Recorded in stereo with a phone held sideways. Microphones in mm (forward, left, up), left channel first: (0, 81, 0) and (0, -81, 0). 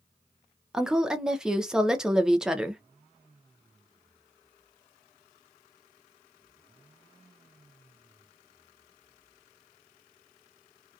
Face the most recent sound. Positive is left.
turn(degrees=-5)  # may be behind; listen again after turning